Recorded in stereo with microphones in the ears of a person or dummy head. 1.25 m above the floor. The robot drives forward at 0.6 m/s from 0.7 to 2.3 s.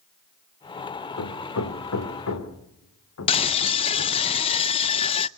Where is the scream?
30° left (ahead or behind), 0.7 m.